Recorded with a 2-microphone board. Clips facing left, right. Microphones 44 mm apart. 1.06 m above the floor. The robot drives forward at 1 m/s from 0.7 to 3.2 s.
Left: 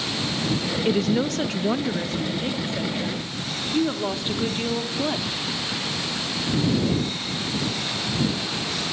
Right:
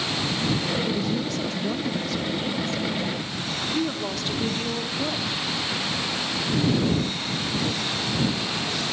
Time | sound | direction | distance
0.8 | a woman speaking | 65° left (ahead or behind) | 1.1 m